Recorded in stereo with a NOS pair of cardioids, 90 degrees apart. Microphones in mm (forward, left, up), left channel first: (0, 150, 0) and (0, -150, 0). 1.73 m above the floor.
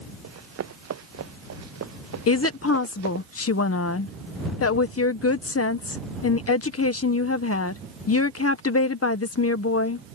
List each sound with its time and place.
0.2 s running footsteps: 55° right
2.3 s a woman speaking: 50° left